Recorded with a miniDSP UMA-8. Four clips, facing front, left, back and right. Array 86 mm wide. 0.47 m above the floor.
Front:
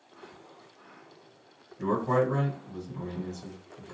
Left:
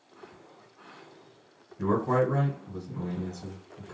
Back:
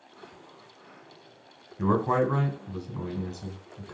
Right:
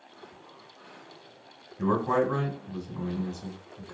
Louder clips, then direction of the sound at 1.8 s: Even, back 2 dB; 155° right.